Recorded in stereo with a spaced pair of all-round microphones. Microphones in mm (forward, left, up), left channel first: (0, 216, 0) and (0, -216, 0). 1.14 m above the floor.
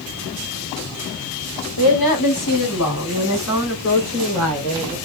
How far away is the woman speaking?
About 0.9 m.